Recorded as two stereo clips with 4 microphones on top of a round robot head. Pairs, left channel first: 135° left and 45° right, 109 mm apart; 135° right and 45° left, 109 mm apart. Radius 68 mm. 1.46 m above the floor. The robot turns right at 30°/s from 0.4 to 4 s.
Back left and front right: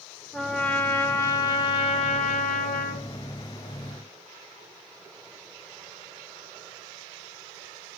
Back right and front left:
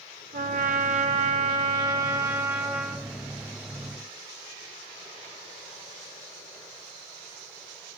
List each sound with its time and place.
0.3 s a trumpet: 50° left, 0.7 m; by 3.1 s 130° left, 0.7 m